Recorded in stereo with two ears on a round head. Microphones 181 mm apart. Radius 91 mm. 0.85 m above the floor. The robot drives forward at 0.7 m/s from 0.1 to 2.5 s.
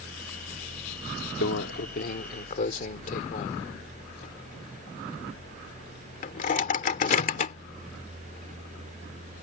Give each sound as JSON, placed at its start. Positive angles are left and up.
{"t": 1.4, "sound": "a microwave", "side_deg": 65}